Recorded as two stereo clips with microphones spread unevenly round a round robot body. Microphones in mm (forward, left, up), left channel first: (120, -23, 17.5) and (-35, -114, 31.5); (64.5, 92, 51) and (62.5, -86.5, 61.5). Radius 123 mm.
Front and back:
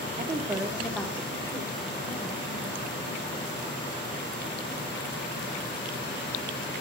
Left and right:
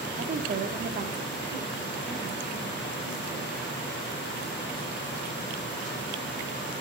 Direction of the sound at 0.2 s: 115° right.